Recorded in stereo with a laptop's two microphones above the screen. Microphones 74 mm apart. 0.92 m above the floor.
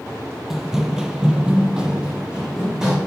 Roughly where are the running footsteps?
Centre.